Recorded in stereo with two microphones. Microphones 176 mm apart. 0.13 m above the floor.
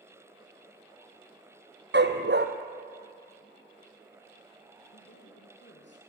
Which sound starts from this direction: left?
A man speaking, at 4.9 s.